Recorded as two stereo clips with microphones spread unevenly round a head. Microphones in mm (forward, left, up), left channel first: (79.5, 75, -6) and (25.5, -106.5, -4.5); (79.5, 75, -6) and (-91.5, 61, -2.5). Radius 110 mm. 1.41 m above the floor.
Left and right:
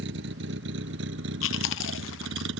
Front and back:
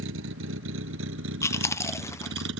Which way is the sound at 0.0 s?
150° right.